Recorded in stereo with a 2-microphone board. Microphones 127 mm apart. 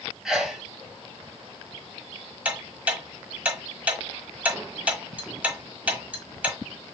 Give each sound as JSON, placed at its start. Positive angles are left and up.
{"t": 0.2, "sound": "a sneeze", "side_deg": -5, "distance_m": 1.3}
{"t": 2.5, "sound": "ticking", "side_deg": -10, "distance_m": 1.3}